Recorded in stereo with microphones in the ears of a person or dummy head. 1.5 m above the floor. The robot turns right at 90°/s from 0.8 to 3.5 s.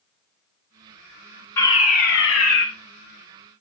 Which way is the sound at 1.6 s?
20° left.